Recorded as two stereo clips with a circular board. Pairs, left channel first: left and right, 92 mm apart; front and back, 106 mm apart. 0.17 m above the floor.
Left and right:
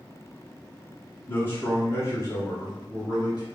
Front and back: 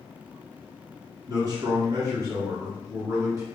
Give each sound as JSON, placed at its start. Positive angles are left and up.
{"t": 1.3, "sound": "a man speaking", "azimuth_deg": 145, "distance_m": 2.0}